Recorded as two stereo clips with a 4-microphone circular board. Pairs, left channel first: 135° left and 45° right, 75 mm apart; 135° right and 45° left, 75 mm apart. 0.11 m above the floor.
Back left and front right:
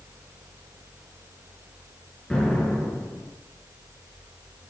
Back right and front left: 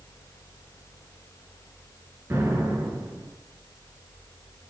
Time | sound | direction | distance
2.3 | an explosion | 65° left | 1.9 m